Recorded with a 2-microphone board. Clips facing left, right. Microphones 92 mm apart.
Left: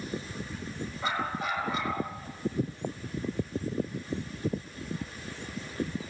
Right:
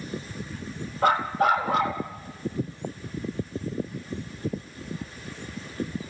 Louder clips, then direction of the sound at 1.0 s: Right 11 dB; 65° right (ahead or behind).